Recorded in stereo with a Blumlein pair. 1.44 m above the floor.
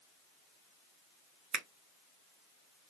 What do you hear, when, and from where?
1.5 s a finger snap: 25° right, 0.7 m